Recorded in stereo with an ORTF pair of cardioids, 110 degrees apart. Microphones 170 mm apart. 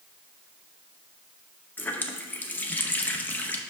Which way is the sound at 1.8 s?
10° left.